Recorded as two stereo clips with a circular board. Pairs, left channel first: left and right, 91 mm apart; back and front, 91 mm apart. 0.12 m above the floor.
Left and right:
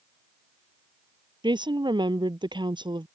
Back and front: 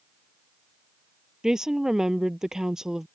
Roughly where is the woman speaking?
Right.